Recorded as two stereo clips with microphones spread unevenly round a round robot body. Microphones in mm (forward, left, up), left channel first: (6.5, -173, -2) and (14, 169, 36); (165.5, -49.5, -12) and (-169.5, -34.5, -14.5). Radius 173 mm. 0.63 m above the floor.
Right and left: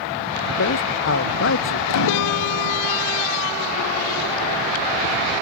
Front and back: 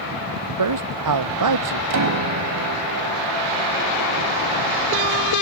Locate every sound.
0.6 s a man speaking: 150° right
1.9 s a piano: 140° right